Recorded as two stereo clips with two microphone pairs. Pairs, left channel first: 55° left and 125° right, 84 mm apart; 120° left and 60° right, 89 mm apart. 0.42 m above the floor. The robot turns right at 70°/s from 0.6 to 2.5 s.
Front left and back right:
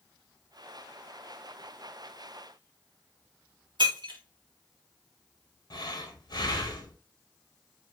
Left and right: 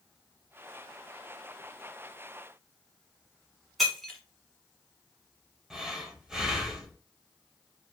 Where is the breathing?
25° left, 0.7 m.